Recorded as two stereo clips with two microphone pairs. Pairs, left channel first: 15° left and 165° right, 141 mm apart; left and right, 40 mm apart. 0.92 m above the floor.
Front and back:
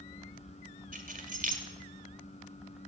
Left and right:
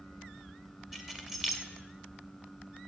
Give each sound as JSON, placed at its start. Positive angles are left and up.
{"t": 0.9, "sound": "keys jangling", "azimuth_deg": -170, "distance_m": 2.5}